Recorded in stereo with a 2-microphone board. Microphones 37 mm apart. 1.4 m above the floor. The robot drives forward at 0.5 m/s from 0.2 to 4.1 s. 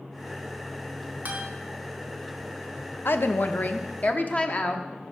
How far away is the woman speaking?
About 0.6 m.